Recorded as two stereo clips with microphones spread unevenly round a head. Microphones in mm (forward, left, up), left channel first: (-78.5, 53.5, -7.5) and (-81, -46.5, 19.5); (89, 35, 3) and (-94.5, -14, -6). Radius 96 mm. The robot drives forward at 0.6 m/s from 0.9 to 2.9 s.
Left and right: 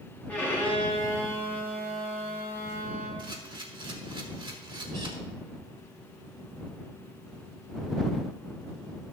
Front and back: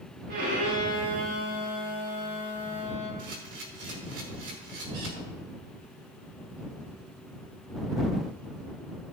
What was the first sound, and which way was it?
A violin, 160° left.